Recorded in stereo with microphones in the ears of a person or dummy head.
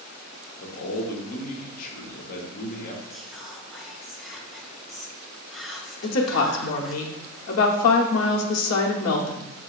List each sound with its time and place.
0.6 s a man speaking: 50° left (ahead or behind), 1.1 m
3.1 s whispering: 5° right (ahead or behind), 0.8 m
6.0 s a woman speaking: 85° left, 0.8 m